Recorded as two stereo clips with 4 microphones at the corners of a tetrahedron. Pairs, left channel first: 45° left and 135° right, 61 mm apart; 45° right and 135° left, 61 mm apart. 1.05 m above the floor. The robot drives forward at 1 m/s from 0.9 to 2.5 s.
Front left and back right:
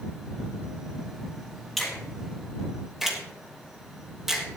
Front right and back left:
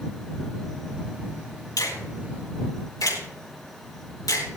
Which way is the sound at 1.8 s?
40° right.